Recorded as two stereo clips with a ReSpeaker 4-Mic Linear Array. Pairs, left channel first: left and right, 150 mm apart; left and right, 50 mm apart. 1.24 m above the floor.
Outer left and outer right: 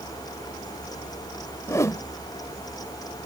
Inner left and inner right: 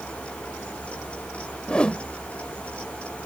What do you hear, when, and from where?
1.7 s a whoosh: 20° left (ahead or behind)